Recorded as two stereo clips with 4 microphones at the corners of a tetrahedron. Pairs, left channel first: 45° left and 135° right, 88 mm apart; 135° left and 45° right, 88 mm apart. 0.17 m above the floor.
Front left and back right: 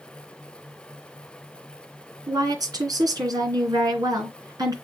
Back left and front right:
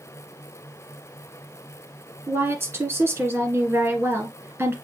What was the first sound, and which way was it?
A woman speaking, 100° right.